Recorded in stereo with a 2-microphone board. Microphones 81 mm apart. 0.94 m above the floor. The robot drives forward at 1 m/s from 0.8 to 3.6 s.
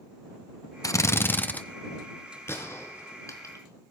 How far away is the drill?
About 0.6 m.